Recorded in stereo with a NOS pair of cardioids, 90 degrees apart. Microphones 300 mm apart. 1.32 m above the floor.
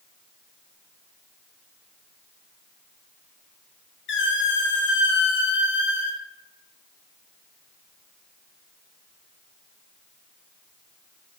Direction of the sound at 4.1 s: 40° left.